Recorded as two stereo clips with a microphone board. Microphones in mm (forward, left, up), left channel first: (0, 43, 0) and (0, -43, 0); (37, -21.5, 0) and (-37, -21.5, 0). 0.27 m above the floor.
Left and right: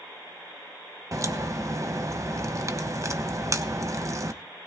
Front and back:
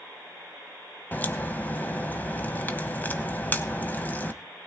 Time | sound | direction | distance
1.1 | a crack | 55° right | 1.1 m